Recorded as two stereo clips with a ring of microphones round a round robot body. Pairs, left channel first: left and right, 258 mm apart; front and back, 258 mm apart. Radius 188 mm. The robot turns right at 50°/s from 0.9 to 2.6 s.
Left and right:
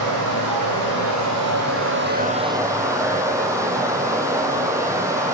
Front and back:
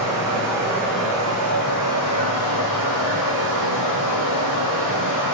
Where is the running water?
95° right, 1.2 m; by 5.4 s 10° right, 1.2 m.